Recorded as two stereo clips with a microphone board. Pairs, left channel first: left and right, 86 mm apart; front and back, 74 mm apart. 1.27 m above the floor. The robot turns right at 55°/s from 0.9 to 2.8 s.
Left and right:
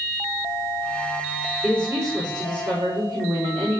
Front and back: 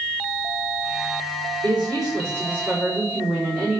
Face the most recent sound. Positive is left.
turn(degrees=-105)